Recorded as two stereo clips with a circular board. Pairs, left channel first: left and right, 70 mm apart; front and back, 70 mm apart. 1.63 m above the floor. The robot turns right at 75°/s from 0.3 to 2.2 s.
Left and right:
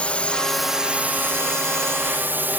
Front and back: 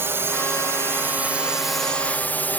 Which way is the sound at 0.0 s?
155° left.